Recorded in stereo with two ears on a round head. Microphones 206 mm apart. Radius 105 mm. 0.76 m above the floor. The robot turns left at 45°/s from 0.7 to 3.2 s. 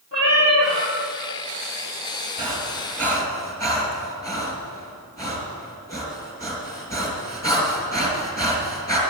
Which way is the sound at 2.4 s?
20° right (ahead or behind).